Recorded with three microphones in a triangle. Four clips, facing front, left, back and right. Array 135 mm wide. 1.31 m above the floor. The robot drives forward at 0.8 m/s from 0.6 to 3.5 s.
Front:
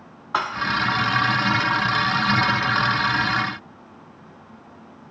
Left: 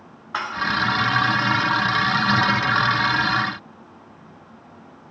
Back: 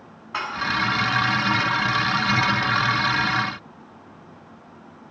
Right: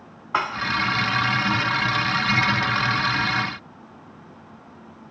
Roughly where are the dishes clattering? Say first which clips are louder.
Right 3 dB, front 5 dB; ahead right.